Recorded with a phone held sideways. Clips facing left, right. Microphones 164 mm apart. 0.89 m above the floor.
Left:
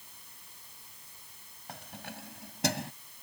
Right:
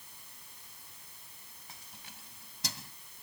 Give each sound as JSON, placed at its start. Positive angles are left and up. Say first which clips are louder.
{"t": 1.7, "sound": "keys jangling", "louder": "left 13 dB", "side_deg": 65}